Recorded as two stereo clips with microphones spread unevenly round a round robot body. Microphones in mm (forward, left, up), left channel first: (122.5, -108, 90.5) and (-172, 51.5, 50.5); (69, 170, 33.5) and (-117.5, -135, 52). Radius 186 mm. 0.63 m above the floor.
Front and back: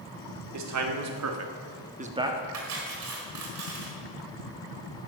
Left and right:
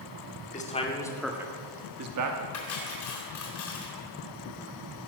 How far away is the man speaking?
About 2.5 m.